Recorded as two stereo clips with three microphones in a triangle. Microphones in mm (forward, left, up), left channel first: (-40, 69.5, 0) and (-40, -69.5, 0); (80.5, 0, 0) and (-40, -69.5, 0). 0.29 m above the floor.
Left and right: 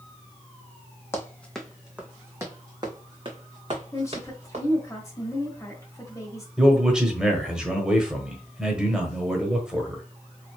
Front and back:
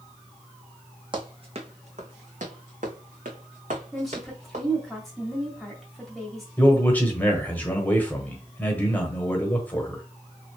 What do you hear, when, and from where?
1.1 s running footsteps: 160° left, 1.0 m; by 4.7 s 125° right, 2 m
3.9 s a woman speaking: 120° left, 1.4 m
6.6 s a man speaking: 20° right, 1.1 m